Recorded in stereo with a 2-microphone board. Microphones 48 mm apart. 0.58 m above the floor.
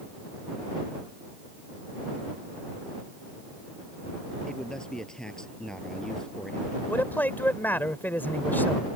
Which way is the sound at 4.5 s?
10° left (ahead or behind).